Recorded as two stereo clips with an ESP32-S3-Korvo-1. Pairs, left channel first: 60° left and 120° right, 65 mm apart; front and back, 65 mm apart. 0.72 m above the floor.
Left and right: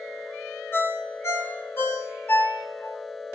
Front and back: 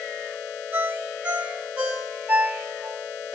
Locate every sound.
0.7 s a ringtone: 115° left, 1.5 m